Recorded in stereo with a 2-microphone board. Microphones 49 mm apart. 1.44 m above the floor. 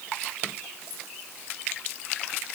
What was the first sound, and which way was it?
Only background noise.